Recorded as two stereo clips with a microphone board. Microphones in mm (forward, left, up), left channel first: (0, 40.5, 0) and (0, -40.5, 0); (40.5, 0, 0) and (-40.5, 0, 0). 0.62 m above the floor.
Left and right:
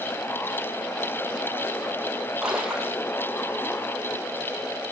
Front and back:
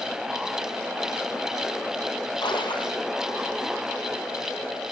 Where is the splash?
5° right, 3 m.